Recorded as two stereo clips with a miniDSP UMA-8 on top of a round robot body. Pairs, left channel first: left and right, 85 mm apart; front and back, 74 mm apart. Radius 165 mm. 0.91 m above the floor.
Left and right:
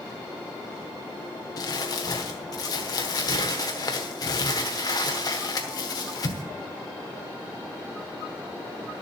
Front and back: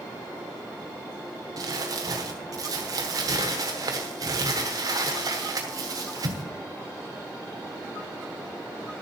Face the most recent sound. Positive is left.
turn(degrees=135)